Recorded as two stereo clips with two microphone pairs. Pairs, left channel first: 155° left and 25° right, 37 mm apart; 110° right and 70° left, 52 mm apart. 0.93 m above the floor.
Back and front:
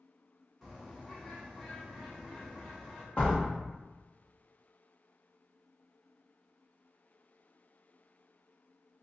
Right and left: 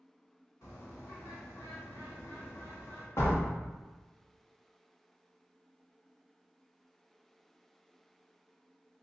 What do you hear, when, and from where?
0.6 s a bird: 110° right, 1.1 m
3.2 s a door slam: 145° right, 1.1 m